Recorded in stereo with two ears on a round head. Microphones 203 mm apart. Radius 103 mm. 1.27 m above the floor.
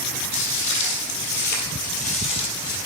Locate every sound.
0.3 s footsteps: 55° left (ahead or behind), 2.5 m; by 2.8 s 15° left (ahead or behind), 2.5 m